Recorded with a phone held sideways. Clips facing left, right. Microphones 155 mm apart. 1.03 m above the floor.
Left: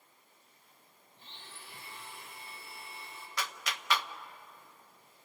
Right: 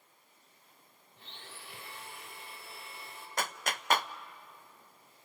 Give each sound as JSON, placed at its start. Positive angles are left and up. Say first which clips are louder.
{"t": 1.2, "sound": "a blender", "louder": "right 2 dB", "side_deg": -70, "distance_m": 3.5}
{"t": 3.4, "sound": "a clap", "louder": "right 4 dB", "side_deg": -45, "distance_m": 0.6}